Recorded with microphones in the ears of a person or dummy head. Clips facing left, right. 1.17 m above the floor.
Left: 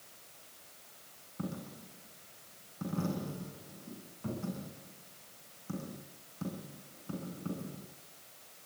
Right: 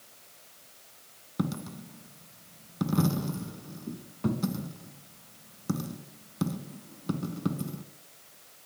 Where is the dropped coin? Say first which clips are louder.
Right 8 dB; 65° right (ahead or behind), 2.5 m.